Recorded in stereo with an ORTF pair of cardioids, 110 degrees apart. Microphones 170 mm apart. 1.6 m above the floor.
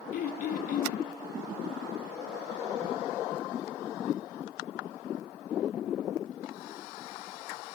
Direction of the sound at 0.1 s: 55° left.